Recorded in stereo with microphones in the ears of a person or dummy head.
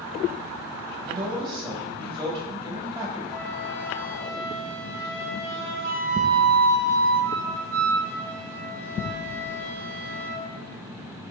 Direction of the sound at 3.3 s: 60° right (ahead or behind).